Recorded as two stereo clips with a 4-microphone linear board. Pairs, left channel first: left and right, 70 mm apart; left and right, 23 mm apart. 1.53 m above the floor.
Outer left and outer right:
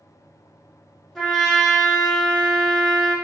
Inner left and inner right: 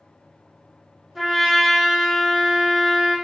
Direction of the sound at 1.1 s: Centre (ahead or behind).